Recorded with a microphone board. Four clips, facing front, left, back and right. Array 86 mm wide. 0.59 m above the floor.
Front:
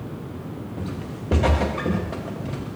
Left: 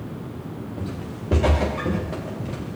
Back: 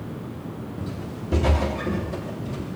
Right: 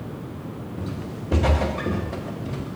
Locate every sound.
0.8 s footsteps: 30° left, 8.5 m; by 2.8 s 35° left, 9.5 m